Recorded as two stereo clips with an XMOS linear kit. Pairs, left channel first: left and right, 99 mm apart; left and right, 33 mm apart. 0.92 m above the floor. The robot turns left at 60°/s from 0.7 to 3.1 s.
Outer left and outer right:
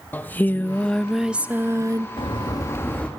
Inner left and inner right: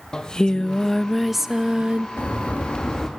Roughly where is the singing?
Ahead left.